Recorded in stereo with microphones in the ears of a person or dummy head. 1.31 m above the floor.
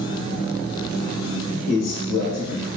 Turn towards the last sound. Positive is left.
turn(degrees=85)